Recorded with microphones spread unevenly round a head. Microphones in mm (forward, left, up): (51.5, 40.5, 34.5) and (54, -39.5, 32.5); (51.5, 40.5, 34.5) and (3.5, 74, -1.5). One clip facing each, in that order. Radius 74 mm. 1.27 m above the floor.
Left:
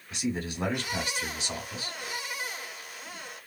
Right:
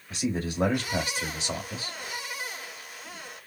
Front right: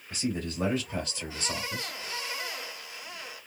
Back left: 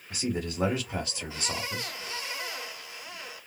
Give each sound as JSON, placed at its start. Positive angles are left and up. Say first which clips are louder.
{"t": 0.1, "sound": "a man speaking", "louder": "right 2 dB, back left 1 dB", "azimuth_deg": -150, "distance_m": 1.3}